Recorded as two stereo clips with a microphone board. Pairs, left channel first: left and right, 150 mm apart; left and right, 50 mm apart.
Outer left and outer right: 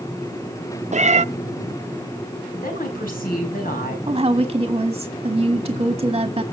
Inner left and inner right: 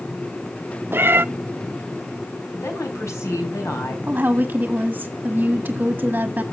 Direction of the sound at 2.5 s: 75° left (ahead or behind).